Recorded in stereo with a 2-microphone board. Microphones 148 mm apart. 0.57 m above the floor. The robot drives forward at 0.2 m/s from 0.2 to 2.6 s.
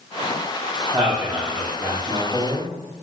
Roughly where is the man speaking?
Right.